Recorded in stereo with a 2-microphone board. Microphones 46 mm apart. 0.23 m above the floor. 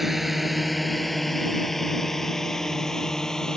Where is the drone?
5° right (ahead or behind); by 3.6 s 10° left (ahead or behind).